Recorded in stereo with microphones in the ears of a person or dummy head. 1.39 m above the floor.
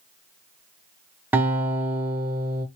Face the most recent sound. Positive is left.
turn(degrees=-10)  # may be behind; listen again after turning